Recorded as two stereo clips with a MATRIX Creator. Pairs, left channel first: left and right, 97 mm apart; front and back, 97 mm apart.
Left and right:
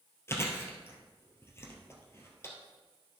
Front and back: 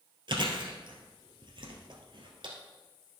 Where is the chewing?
150° left, 1.6 m.